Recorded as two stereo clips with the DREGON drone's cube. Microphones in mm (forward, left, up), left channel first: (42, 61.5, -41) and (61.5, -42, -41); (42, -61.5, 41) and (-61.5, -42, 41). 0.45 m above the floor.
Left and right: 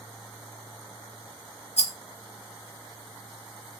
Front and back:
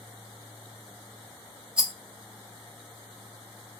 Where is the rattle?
90° left, 0.8 m.